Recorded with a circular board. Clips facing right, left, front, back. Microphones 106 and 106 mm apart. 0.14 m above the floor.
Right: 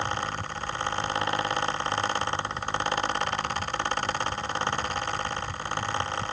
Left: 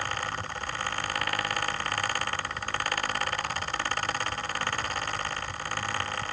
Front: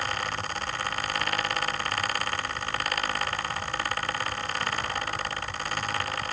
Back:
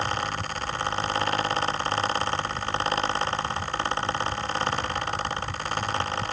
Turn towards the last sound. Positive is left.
No sound to turn to.